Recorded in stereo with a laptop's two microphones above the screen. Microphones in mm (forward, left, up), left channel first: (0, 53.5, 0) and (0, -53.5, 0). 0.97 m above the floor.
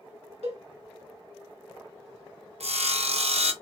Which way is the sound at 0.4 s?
70° right (ahead or behind).